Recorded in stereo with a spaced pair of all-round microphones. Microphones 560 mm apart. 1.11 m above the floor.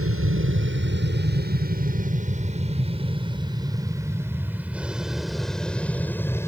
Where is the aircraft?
25° right (ahead or behind); by 6.5 s 5° left (ahead or behind).